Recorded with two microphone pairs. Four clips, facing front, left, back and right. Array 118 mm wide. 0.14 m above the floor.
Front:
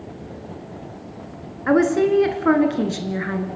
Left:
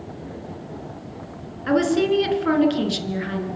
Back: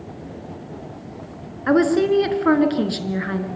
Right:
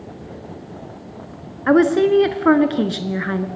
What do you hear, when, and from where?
1.7 s a woman speaking: 95° right, 1.6 m